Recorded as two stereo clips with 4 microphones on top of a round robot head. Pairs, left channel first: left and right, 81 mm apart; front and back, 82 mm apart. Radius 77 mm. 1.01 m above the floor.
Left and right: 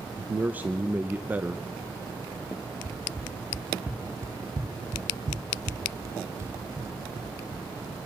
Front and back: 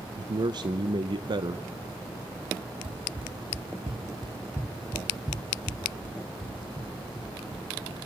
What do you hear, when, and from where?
0.2 s a man speaking: 160° right, 0.7 m
2.8 s running footsteps: 170° left, 2.5 m; by 8.0 s 30° right, 4 m